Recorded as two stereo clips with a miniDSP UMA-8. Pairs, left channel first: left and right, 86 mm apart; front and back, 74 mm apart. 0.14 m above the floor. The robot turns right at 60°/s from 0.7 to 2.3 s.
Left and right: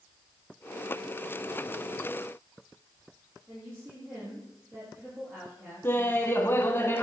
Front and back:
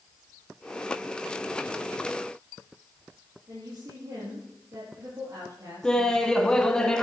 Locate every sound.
3.5 s a woman speaking: 145° right, 5 m
5.8 s laughter: 70° left, 1.2 m